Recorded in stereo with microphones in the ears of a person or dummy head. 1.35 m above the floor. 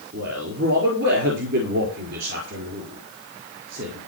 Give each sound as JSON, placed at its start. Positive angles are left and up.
{"t": 0.1, "sound": "a man speaking", "side_deg": -70, "distance_m": 4.5}